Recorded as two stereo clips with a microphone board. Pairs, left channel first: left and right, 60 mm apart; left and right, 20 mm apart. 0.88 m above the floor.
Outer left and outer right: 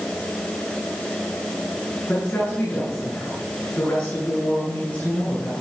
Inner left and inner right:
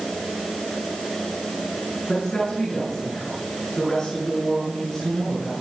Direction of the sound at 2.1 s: 40° left (ahead or behind).